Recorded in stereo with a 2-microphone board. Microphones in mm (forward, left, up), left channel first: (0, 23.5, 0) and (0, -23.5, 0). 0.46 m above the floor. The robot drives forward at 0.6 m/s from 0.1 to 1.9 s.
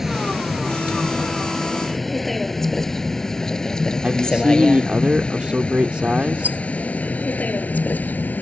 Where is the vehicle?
5° right (ahead or behind); by 8.4 s 40° left (ahead or behind).